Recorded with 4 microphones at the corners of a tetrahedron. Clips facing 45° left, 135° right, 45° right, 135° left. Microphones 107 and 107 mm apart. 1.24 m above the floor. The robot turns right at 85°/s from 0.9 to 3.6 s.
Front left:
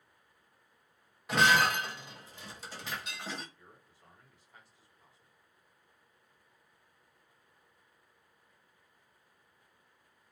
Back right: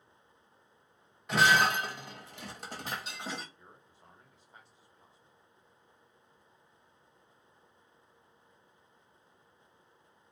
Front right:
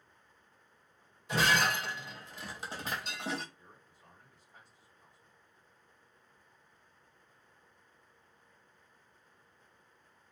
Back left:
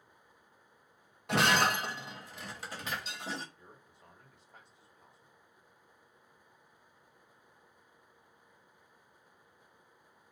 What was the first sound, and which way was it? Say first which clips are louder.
Breaking glass: back right 1 dB, back left 2 dB; 135° left.